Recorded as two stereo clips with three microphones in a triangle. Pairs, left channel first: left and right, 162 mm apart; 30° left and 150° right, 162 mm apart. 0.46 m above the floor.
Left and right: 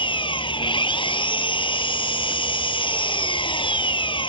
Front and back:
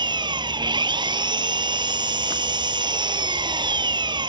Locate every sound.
0.0 s an engine running: 150° left